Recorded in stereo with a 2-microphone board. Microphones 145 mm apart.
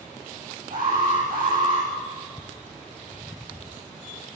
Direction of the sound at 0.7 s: 80° right.